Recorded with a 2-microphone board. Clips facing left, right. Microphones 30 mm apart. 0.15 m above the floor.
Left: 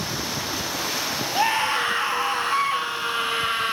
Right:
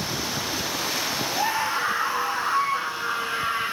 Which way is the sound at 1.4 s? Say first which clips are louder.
Left 5 dB; 50° left (ahead or behind).